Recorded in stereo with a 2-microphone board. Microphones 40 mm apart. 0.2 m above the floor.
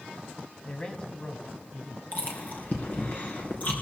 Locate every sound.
0.7 s a man speaking: 25° left (ahead or behind), 1.6 m
2.1 s chewing: 45° left (ahead or behind), 3 m